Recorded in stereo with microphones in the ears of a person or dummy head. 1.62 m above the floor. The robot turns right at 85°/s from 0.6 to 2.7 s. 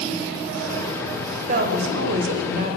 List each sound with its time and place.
1.5 s a woman speaking: 140° right, 0.8 m; by 2.8 s 35° right, 0.8 m